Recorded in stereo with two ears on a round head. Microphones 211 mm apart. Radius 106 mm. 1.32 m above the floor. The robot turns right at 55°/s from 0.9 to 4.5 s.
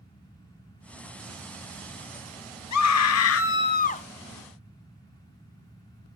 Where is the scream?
80° left, 1.0 m; by 4.0 s 150° left, 1.0 m.